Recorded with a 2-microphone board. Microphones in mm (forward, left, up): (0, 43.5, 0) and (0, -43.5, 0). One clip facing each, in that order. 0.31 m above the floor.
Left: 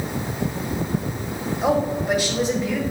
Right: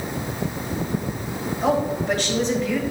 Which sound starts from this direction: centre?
A woman speaking, at 1.6 s.